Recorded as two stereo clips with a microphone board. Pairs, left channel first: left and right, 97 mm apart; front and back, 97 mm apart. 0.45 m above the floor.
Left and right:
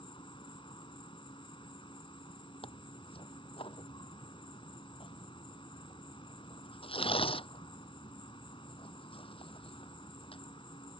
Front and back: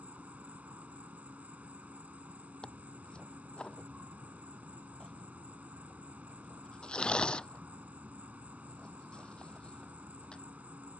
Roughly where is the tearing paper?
Left.